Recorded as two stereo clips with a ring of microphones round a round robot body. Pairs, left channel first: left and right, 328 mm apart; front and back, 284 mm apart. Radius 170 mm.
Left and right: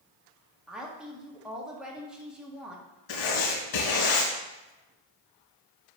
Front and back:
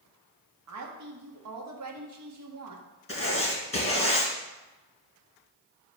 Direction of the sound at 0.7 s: Straight behind.